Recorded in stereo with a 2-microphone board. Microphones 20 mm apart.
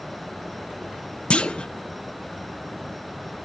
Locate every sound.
1.3 s a clunk: 65° left (ahead or behind), 0.6 m